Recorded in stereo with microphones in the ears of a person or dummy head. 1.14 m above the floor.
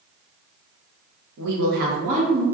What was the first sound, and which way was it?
A woman speaking, 70° right (ahead or behind).